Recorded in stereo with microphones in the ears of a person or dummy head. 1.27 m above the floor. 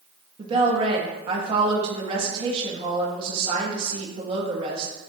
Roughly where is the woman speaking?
Right.